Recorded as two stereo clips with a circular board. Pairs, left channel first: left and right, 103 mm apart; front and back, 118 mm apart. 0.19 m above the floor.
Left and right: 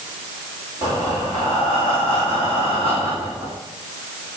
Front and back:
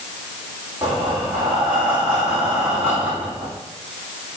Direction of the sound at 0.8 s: 105° left.